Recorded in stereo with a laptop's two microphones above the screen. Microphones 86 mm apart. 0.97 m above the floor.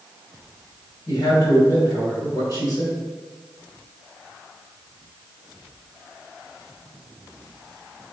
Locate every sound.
1.1 s a man speaking: 45° left (ahead or behind), 3 m